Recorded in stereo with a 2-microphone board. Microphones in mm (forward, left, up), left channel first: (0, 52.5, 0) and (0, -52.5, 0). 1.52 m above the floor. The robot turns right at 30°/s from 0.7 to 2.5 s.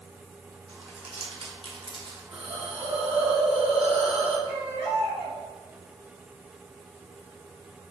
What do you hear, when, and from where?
0.7 s crumpling: 80° right, 0.9 m; by 2.2 s 45° right (ahead or behind), 0.9 m
2.3 s a hiss: 65° right (ahead or behind), 0.7 m; by 4.4 s 70° right (ahead or behind), 0.7 m
4.5 s a baby crying: 65° right (ahead or behind), 1.1 m